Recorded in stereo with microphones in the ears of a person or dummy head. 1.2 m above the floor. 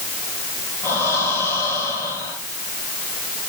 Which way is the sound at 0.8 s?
10° left (ahead or behind).